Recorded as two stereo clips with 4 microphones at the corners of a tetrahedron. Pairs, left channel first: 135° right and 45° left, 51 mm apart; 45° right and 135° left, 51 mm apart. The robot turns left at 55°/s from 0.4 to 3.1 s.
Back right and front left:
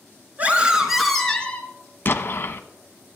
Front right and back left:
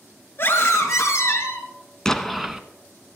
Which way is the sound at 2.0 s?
115° right.